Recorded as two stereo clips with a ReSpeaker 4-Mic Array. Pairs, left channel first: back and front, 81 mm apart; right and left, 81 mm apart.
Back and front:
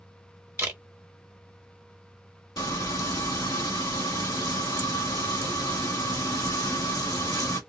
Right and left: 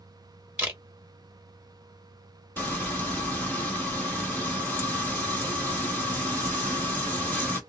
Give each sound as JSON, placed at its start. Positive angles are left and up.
{"t": 0.6, "sound": "a camera shutter", "azimuth_deg": 40, "distance_m": 1.1}
{"t": 2.6, "sound": "frying", "azimuth_deg": -155, "distance_m": 1.8}